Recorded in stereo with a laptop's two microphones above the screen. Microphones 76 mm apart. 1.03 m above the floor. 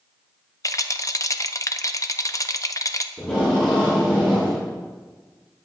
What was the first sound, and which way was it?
A rattle, 45° left (ahead or behind).